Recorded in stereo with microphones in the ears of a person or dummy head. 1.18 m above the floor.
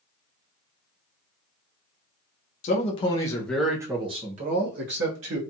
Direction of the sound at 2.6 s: 40° left (ahead or behind).